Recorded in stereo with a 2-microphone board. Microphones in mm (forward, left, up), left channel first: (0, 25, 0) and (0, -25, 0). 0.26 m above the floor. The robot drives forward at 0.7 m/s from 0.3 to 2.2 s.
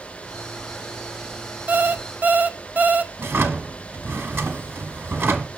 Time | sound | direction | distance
1.7 | an alarm clock | 30° right (ahead or behind) | 0.6 m
3.2 | a drawer | 50° right (ahead or behind) | 0.8 m